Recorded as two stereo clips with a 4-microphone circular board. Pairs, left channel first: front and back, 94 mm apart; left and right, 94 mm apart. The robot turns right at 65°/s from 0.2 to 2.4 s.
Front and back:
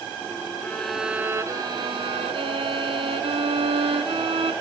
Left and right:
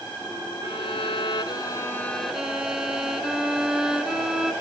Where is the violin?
70° left, 0.6 m; by 4.5 s 175° right, 0.6 m.